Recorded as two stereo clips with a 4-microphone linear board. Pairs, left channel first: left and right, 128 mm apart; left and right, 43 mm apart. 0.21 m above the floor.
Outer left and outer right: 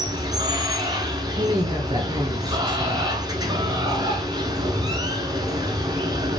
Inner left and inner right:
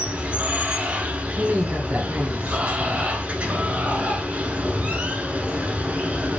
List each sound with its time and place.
0.0 s running water: 30° right (ahead or behind), 0.8 m
1.4 s a woman speaking: 35° right (ahead or behind), 1.3 m